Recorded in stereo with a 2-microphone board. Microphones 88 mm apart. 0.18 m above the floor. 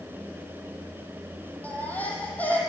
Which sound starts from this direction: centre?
A baby crying, at 1.6 s.